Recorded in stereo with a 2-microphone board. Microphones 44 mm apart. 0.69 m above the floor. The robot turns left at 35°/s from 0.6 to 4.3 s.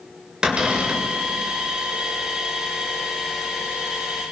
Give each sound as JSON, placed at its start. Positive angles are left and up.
{"t": 0.4, "sound": "a cupboard door", "side_deg": -20, "distance_m": 2.5}